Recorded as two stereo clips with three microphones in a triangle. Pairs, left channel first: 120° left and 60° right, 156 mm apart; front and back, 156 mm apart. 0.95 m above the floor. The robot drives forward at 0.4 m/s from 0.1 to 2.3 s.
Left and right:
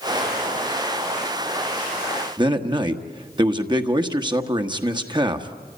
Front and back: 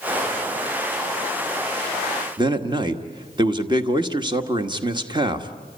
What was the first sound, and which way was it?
A man speaking, 120° right.